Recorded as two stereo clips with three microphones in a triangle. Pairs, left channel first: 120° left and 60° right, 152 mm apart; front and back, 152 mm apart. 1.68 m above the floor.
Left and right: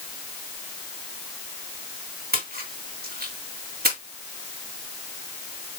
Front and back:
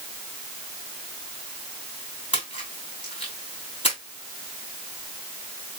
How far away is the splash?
About 3.5 m.